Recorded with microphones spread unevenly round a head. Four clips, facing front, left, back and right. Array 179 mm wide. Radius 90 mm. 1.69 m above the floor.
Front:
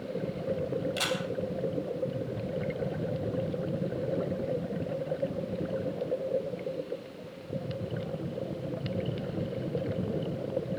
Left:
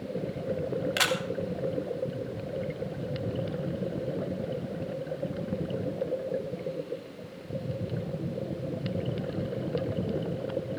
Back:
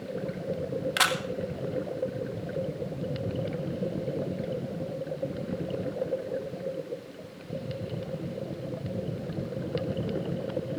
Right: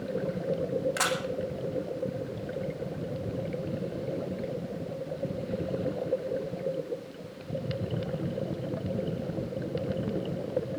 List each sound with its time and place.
1.0 s a camera shutter: straight behind, 2 m